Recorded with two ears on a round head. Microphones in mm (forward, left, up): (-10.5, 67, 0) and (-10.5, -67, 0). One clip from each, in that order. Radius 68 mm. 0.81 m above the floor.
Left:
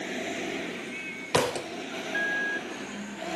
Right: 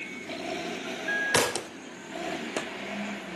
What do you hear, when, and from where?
1.3 s a thud: 45° right (ahead or behind), 0.6 m